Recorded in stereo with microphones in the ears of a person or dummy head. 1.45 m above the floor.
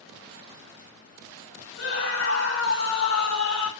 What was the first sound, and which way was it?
A scream, 70° left (ahead or behind).